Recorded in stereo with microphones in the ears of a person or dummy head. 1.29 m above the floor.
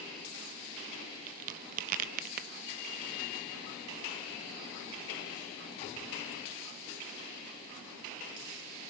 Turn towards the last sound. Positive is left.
turn(degrees=-45)  # may be behind; listen again after turning